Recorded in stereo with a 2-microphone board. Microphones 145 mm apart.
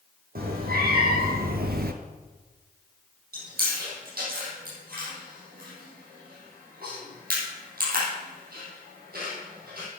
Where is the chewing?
80° right, 5.5 m.